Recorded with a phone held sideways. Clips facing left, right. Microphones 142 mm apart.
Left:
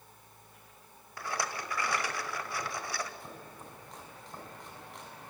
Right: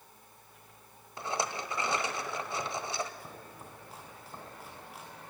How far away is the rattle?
About 1.4 m.